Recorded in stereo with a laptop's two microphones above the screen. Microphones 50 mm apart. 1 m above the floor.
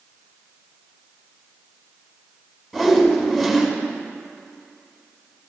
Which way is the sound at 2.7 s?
Centre (ahead or behind).